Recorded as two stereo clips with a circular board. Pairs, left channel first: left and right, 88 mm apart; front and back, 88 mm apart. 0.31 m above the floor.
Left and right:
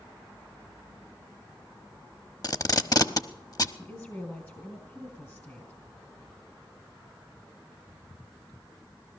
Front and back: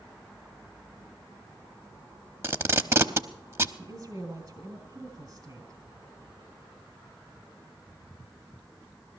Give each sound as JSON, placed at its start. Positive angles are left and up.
{"t": 2.4, "sound": "tape being pulled", "azimuth_deg": 125, "distance_m": 0.7}
{"t": 3.8, "sound": "a woman speaking", "azimuth_deg": 145, "distance_m": 2.0}